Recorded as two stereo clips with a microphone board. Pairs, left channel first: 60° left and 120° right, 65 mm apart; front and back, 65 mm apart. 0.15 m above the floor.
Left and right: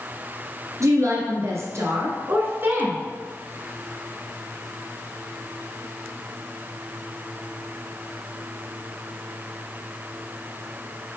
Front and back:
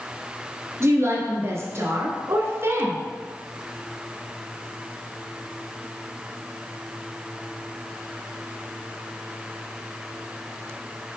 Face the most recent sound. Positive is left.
turn(degrees=-165)